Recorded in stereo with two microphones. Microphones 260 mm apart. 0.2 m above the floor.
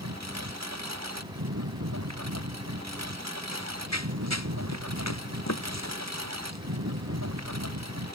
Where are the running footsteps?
85° left.